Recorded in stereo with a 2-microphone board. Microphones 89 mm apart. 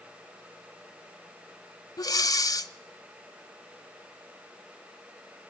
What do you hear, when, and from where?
2.0 s breathing: 45° left (ahead or behind), 0.7 m